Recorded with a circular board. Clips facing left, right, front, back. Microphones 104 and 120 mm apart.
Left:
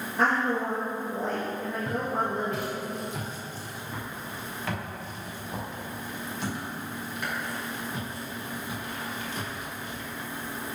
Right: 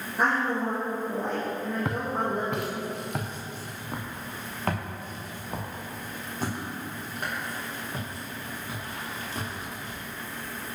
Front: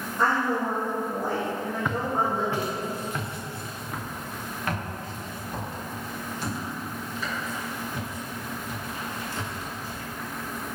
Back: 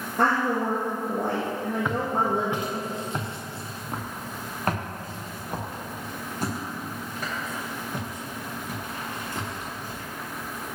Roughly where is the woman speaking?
Behind.